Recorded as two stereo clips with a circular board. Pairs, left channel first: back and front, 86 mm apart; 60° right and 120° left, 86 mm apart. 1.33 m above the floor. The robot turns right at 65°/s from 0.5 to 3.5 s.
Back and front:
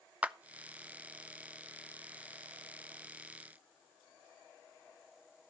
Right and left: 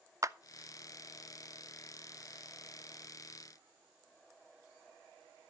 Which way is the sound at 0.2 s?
70° left.